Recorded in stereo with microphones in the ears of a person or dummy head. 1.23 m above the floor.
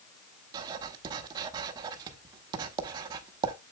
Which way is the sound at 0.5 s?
25° right (ahead or behind).